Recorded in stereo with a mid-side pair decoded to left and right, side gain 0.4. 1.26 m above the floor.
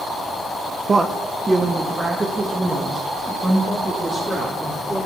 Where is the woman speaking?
35° right, 0.7 m; by 5.1 s 20° right, 3 m.